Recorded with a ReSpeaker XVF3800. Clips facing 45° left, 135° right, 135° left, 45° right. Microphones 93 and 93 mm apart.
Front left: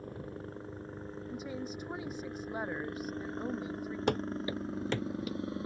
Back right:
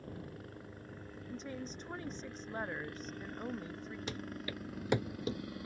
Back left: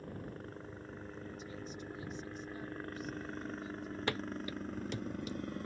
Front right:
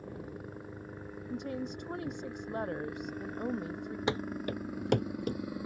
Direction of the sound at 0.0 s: 25° left.